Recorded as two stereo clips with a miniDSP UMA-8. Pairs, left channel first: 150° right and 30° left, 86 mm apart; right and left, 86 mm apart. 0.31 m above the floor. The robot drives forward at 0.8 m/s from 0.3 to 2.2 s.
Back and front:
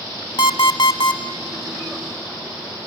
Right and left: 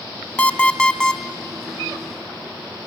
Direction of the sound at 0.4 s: 160° right.